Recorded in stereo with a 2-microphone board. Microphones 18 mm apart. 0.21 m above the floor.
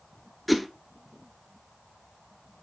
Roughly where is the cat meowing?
No cat meowing in this recording.